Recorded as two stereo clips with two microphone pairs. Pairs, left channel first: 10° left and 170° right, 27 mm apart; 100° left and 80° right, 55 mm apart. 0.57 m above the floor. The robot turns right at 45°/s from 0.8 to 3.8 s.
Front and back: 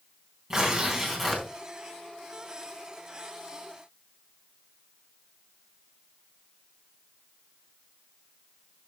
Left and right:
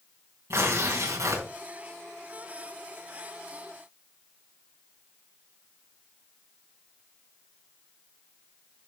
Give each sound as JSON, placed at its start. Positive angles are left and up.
{"t": 0.5, "sound": "tearing paper", "azimuth_deg": -100, "distance_m": 3.5}